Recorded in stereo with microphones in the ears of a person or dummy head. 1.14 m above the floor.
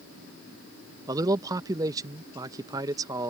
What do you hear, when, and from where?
1.1 s a man speaking: 15° right (ahead or behind)